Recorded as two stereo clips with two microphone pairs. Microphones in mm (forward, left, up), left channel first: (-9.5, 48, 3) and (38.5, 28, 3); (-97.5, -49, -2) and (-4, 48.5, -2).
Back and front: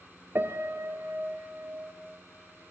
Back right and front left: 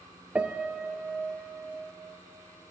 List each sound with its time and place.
0.3 s a piano: 35° right, 0.5 m